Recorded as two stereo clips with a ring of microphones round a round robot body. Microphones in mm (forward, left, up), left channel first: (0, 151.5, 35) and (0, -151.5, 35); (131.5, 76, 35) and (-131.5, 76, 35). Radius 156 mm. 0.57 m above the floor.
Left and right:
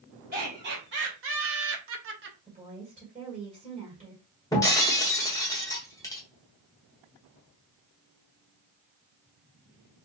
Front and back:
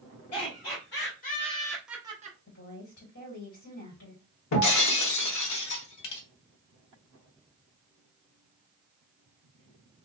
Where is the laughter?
35° right, 2 m; by 2.4 s 135° right, 1.1 m.